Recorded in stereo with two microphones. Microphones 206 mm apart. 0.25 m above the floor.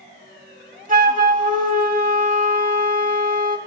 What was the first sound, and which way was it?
A flute, 40° right (ahead or behind).